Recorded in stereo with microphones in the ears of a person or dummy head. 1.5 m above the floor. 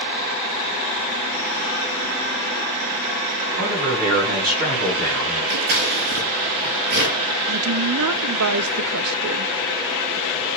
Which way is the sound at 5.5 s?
60° right (ahead or behind).